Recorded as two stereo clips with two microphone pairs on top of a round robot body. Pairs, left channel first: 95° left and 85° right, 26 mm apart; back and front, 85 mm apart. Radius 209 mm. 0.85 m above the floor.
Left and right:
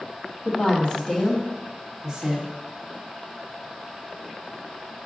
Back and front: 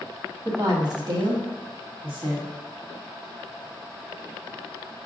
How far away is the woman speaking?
About 1.6 m.